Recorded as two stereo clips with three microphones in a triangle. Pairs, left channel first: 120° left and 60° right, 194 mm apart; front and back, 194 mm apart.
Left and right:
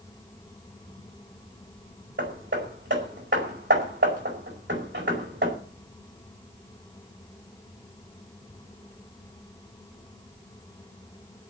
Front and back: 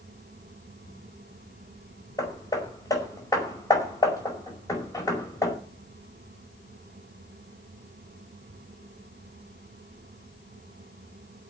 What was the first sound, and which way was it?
Hammering, 75° right.